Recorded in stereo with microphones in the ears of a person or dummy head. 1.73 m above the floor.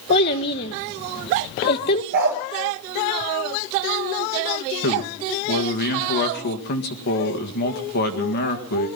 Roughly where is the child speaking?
Left.